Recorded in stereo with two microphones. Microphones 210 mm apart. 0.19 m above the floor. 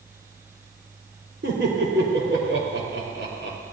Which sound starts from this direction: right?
Laughter, at 1.4 s.